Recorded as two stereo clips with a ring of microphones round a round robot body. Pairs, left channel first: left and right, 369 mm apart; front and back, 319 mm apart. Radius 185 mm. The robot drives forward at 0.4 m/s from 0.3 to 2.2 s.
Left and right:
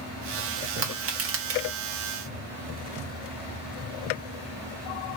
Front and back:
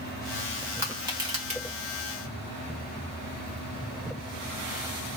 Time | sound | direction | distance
0.8 | crushing | 100° right | 1.2 m